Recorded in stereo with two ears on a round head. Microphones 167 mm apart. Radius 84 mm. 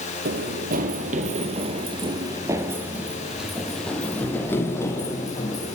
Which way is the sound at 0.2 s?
55° right (ahead or behind).